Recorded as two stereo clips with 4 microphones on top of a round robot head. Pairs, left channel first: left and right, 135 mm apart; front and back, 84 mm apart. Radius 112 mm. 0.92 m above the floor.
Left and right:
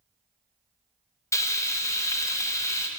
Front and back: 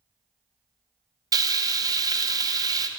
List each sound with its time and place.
1.3 s frying: 155° left, 0.6 m